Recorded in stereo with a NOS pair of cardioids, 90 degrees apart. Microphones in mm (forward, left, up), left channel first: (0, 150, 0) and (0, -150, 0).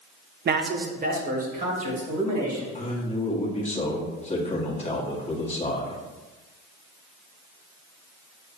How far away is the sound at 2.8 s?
About 1.3 m.